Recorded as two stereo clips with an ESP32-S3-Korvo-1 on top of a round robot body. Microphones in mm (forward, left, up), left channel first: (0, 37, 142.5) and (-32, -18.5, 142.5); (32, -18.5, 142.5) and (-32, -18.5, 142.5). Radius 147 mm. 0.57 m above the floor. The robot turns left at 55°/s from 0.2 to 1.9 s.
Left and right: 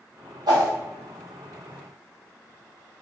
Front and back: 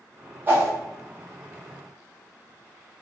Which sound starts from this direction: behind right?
A whoosh, at 0.5 s.